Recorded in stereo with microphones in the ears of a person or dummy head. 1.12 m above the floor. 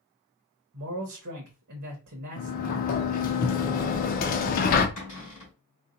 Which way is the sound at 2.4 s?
45° left (ahead or behind).